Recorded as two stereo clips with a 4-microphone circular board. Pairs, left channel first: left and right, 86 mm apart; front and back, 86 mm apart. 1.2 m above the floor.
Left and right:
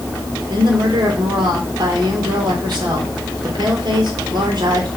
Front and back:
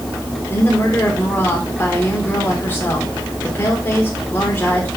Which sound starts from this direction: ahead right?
A woman speaking, at 0.5 s.